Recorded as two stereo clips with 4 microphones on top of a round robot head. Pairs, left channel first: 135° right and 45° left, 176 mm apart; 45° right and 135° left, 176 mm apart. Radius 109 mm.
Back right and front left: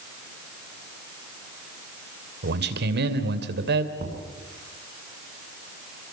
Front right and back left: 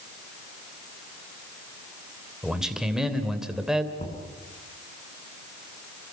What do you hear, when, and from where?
2.4 s a man speaking: 45° left, 2.5 m
4.0 s knocking: 5° left, 5.5 m